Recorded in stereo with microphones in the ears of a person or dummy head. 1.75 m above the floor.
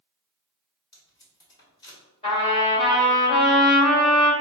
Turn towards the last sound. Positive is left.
turn(degrees=35)  # may be behind; listen again after turning